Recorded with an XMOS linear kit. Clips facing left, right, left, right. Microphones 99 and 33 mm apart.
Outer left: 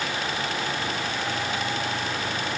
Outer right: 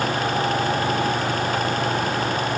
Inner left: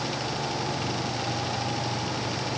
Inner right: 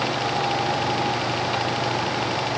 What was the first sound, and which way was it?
Only background noise.